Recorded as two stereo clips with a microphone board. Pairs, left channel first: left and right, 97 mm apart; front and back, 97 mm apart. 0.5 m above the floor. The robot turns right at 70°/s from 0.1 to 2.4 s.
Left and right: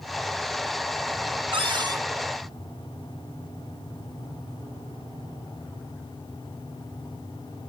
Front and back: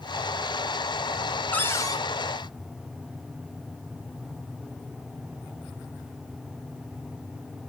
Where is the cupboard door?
75° right, 3 m; by 2.0 s 40° right, 3 m.